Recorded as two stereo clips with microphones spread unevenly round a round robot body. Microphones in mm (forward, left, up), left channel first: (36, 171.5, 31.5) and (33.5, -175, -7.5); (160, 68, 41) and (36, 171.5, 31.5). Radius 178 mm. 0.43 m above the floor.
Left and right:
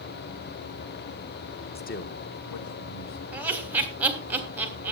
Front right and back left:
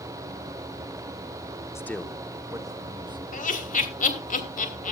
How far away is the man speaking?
About 1.0 m.